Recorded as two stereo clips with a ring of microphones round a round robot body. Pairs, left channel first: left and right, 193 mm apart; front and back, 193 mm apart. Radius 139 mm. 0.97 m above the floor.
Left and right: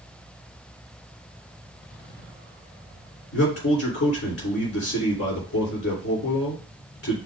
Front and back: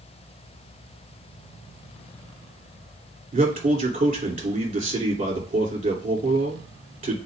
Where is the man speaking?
125° left, 3 m.